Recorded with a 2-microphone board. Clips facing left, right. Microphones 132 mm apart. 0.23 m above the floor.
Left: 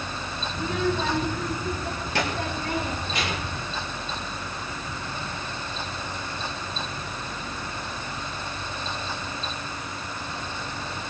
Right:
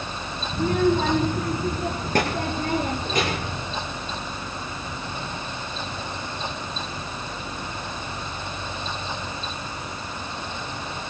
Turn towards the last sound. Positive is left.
turn(degrees=-45)  # may be behind; listen again after turning